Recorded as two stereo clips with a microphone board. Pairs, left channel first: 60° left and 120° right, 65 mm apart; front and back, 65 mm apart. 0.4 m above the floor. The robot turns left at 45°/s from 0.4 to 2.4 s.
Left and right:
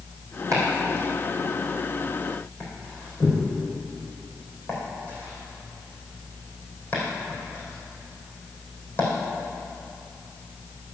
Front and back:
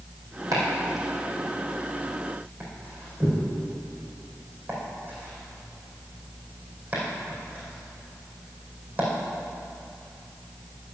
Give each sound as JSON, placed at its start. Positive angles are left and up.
{"t": 0.5, "sound": "chopping", "azimuth_deg": -155, "distance_m": 4.5}